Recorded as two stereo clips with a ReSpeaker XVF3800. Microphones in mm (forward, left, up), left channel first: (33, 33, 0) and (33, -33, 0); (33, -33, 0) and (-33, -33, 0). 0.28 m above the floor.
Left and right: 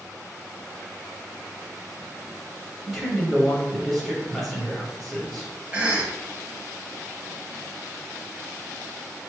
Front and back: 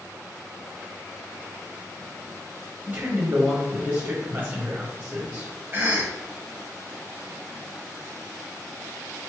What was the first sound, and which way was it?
A man speaking, 175° left.